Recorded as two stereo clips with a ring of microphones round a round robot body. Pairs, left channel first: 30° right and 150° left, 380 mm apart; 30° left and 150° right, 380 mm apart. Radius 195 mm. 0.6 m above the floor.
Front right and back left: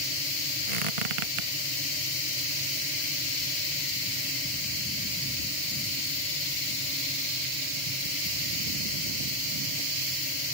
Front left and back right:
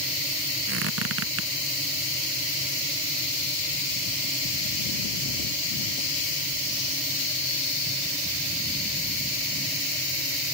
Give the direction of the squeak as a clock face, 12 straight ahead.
7 o'clock.